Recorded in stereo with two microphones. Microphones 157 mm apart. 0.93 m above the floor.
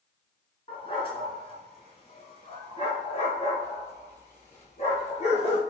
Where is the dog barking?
35° left (ahead or behind), 3 m; by 5.6 s 40° left (ahead or behind), 6 m.